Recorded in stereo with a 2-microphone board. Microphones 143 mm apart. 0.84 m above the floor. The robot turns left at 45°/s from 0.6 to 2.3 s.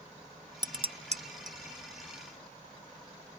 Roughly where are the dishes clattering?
Right.